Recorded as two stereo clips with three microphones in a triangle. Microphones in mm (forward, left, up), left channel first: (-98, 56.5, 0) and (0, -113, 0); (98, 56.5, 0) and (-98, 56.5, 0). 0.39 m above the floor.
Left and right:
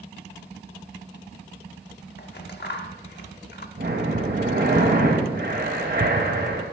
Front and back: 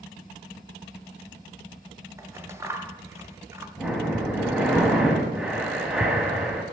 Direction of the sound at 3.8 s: 95° right.